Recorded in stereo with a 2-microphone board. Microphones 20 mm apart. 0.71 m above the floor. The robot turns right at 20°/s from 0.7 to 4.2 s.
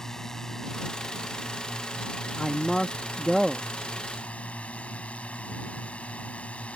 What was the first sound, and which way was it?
A drone, 25° left.